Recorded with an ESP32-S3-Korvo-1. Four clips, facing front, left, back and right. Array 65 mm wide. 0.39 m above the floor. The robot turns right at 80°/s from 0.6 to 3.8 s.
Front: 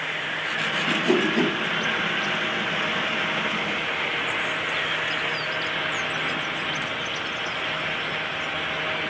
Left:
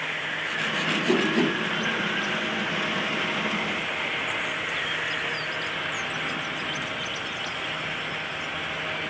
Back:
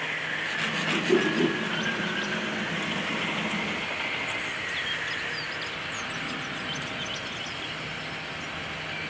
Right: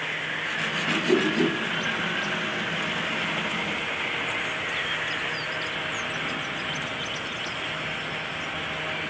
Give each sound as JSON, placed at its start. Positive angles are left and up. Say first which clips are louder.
{"t": 0.9, "sound": "a whoosh", "louder": "right 1 dB, front 2 dB", "azimuth_deg": -5, "distance_m": 3.0}